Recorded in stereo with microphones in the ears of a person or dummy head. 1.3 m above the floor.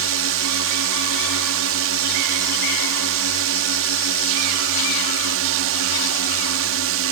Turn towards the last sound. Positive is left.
turn(degrees=-65)  # may be behind; listen again after turning